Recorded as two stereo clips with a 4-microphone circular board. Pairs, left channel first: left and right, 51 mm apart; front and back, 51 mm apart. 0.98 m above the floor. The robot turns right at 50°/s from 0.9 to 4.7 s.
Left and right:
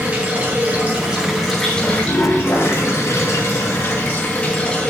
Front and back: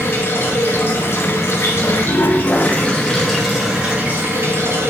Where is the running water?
35° right, 3.5 m; by 4.9 s 155° left, 3.5 m.